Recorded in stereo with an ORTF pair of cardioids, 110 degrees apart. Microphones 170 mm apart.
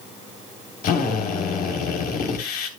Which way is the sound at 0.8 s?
65° left.